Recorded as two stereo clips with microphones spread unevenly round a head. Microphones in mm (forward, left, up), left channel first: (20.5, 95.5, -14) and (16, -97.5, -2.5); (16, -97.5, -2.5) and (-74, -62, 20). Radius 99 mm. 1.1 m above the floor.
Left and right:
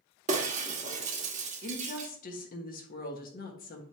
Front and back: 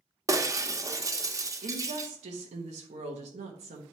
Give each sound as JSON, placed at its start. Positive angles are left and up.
{"t": 0.3, "sound": "breaking glass", "azimuth_deg": -145, "distance_m": 1.2}
{"t": 1.6, "sound": "a woman speaking", "azimuth_deg": 140, "distance_m": 1.2}